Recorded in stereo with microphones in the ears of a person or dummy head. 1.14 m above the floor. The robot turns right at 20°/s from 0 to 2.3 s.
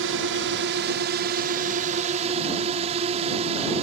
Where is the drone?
85° right; by 3.8 s 40° right.